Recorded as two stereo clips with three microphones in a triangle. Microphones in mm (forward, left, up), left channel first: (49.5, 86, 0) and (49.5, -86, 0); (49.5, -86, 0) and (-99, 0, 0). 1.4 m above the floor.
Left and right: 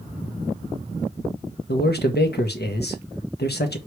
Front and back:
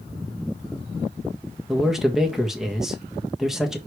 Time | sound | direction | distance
1.7 | a man speaking | 65° left | 1.3 m